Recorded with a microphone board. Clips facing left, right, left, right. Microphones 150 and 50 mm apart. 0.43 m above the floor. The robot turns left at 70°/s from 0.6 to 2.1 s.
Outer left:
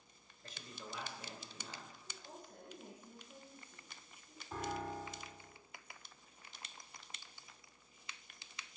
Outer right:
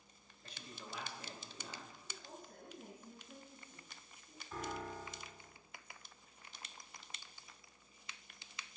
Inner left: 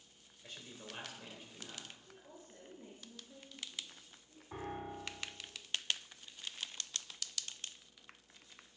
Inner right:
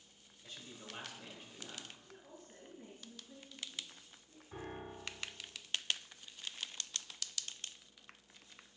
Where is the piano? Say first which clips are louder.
Outer left 2 dB, inner left 3 dB; 35° left (ahead or behind), 1.2 m.